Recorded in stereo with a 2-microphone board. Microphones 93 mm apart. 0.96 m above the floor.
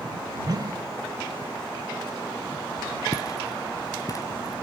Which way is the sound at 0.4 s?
50° right (ahead or behind).